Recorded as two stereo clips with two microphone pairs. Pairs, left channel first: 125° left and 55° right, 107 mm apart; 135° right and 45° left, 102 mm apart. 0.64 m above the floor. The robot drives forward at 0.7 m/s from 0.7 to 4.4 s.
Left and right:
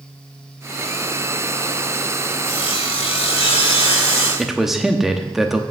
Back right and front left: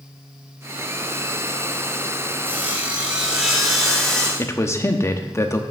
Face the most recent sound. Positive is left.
turn(degrees=-140)